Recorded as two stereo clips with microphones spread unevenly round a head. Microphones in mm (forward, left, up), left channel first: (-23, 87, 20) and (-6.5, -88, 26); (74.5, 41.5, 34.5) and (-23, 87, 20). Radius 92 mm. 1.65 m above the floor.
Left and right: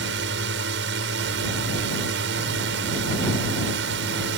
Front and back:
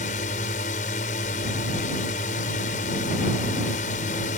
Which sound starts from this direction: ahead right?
A drone, at 0.0 s.